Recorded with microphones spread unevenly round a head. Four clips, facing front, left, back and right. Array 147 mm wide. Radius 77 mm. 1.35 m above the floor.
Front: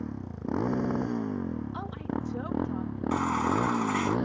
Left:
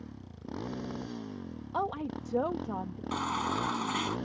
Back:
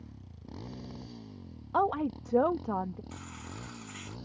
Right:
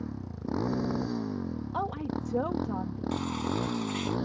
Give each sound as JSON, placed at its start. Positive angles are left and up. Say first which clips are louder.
{"t": 0.0, "sound": "a motorcycle", "louder": "right 9 dB, front 16 dB", "azimuth_deg": -30}
{"t": 1.7, "sound": "a woman speaking", "louder": "left 1 dB, back 5 dB", "azimuth_deg": 170}
{"t": 3.1, "sound": "a baby crying", "louder": "left 1 dB, front 20 dB", "azimuth_deg": 25}